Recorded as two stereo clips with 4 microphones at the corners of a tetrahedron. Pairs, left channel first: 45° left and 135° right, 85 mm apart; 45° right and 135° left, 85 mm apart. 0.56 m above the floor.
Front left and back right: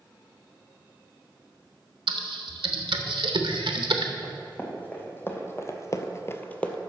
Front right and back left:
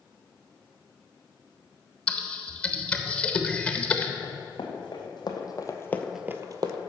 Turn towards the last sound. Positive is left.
turn(degrees=125)